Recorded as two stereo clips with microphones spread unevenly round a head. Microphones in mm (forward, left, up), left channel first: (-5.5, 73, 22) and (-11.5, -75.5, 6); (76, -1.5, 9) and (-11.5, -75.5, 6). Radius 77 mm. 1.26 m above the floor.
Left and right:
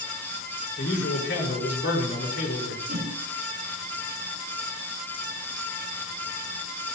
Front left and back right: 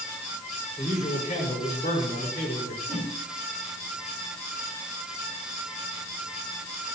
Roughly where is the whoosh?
Ahead right.